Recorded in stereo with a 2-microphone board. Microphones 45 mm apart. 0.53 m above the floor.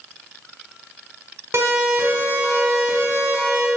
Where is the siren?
75° right (ahead or behind), 5 m.